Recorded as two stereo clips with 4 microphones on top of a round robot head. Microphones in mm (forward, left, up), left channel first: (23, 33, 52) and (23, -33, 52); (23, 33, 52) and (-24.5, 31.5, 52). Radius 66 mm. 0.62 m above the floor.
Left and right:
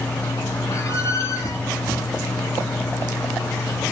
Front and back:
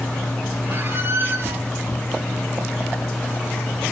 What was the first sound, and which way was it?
A squeak, 140° left.